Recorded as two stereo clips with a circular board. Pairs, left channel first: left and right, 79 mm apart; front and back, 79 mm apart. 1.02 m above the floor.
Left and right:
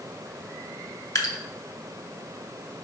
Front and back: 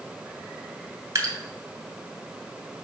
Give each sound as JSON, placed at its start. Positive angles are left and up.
{"t": 1.1, "sound": "dripping", "azimuth_deg": 130, "distance_m": 2.5}